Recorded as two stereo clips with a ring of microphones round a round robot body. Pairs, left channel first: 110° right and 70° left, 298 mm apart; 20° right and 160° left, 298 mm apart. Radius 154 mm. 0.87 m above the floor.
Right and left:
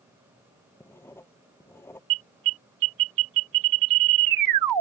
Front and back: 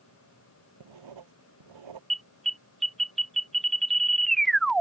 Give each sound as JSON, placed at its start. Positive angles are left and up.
{"t": 0.8, "sound": "writing", "azimuth_deg": 165}
{"t": 2.1, "sound": "an alarm", "azimuth_deg": 65}